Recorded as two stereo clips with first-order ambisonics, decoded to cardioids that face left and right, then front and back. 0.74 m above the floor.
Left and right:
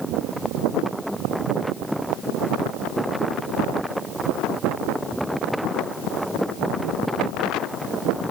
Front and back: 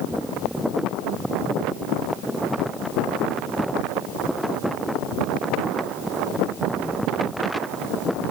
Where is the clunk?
No clunk in this recording.